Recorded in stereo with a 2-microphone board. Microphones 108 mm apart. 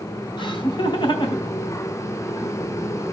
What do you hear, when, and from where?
0.4 s laughter: 50° left (ahead or behind), 3.5 m